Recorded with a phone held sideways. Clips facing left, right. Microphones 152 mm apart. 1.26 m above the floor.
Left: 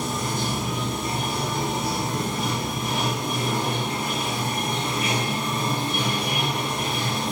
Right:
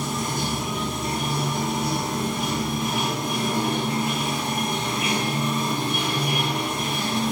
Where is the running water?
60° left (ahead or behind), 1.9 m.